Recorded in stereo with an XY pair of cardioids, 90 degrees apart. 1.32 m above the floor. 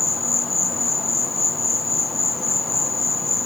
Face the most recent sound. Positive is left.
turn(degrees=30)